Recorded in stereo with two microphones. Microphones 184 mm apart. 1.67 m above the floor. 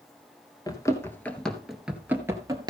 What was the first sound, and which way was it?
Running footsteps, 20° left (ahead or behind).